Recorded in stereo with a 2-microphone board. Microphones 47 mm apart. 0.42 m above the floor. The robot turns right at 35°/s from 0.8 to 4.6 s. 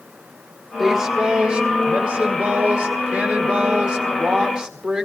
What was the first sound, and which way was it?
A woman speaking, 10° right (ahead or behind).